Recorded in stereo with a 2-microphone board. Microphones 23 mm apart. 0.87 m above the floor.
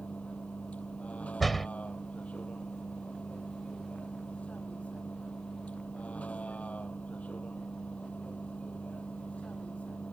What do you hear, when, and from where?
0.0 s a vehicle: 75° left (ahead or behind)
1.4 s a door slam: 5° left (ahead or behind)